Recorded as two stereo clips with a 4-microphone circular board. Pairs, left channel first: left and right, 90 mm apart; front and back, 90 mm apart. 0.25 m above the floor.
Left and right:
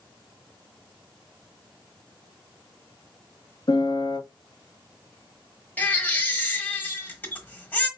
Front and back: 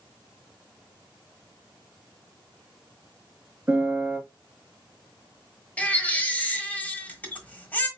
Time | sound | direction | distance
3.7 | a piano | 120° left | 1.2 m
5.8 | a baby crying | 45° left | 1.1 m